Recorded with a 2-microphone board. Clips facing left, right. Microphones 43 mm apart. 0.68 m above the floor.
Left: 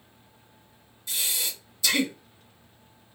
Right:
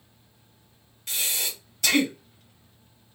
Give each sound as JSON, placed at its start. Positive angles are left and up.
{"t": 1.1, "sound": "breathing", "side_deg": -55, "distance_m": 1.6}